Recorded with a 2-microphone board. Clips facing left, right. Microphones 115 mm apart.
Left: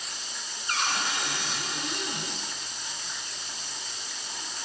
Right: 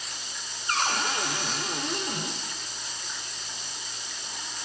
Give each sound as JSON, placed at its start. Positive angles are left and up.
{"t": 0.7, "sound": "a cupboard door", "side_deg": -45, "distance_m": 0.9}